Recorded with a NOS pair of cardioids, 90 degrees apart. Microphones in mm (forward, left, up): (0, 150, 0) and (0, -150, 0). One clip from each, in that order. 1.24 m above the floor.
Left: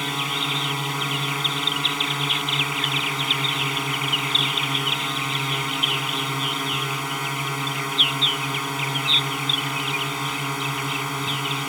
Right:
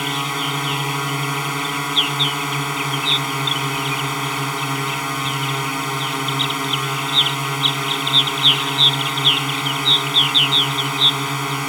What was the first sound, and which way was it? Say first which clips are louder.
A drone: right 3 dB; 30° right.